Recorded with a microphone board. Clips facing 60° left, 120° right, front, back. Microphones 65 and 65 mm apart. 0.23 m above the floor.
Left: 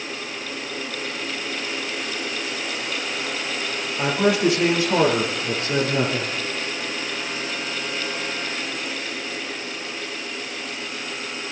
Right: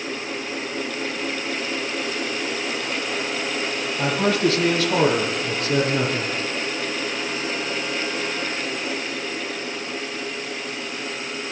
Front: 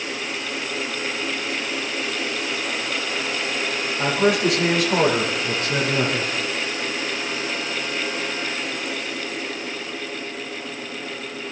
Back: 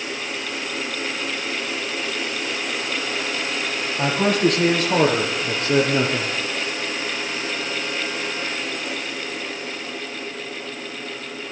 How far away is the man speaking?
About 6 m.